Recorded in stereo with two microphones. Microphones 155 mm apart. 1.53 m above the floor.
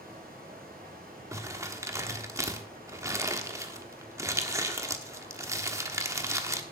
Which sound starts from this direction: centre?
Crumpling, at 1.3 s.